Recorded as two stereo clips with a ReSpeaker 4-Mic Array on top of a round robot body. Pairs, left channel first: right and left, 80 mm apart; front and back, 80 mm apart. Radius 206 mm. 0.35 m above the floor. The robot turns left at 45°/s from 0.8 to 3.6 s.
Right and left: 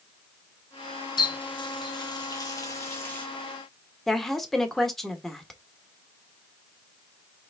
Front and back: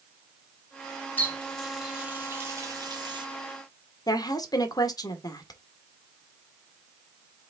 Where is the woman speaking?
5° right, 1.6 m.